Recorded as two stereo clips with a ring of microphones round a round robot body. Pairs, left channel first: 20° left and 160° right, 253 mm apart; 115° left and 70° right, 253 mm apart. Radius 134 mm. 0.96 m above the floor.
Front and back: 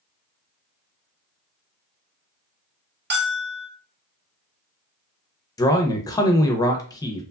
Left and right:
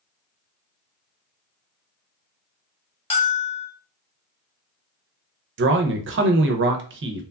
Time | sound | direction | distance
3.1 | a bell | 175° left | 1.0 m
5.6 | a man speaking | 50° right | 0.6 m